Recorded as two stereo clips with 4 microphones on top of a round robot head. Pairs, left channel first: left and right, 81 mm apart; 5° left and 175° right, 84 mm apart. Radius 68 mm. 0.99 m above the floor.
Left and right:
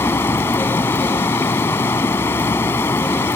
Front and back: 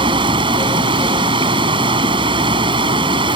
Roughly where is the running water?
Behind.